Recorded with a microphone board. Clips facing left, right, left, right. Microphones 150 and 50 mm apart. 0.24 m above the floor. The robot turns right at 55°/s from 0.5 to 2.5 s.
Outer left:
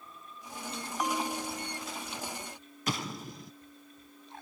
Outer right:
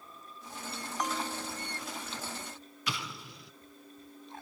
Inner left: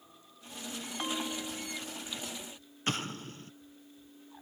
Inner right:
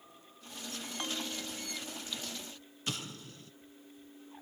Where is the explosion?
45° left (ahead or behind), 1.0 m.